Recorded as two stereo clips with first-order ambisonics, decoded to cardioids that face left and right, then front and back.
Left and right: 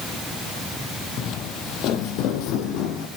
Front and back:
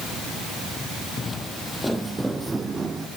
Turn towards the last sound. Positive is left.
turn(degrees=110)